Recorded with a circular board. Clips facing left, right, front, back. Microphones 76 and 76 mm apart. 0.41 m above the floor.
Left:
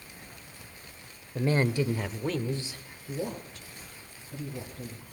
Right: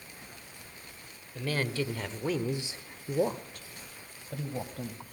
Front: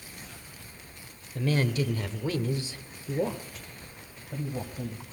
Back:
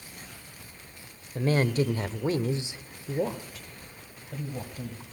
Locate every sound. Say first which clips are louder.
1.4 s a woman speaking: left 5 dB, back 3 dB; 140° left, 1.3 m; by 5.0 s 75° right, 2.5 m